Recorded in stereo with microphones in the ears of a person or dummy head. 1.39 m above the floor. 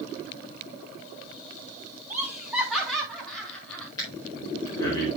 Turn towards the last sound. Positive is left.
turn(degrees=20)  # may be behind; listen again after turning